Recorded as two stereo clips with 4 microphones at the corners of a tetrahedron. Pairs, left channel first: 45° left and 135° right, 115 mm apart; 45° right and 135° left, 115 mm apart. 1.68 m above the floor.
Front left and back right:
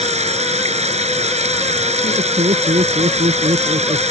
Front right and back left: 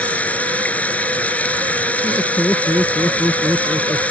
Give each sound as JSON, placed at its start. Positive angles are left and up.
{"t": 0.0, "sound": "running water", "azimuth_deg": -125}
{"t": 2.0, "sound": "laughter", "azimuth_deg": -125}